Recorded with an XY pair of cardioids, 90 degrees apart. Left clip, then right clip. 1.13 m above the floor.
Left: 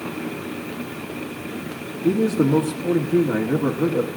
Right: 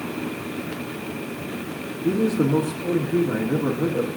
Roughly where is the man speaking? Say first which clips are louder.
Left 2 dB; ahead left.